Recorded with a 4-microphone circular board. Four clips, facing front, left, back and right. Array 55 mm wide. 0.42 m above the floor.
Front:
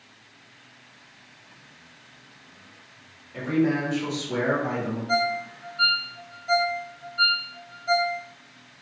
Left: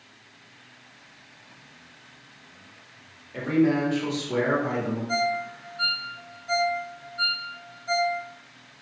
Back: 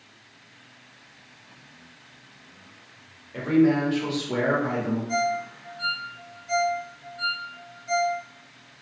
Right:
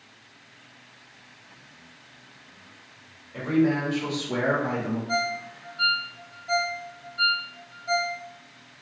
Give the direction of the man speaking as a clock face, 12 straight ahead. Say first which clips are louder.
Left 1 dB, back 3 dB; 8 o'clock.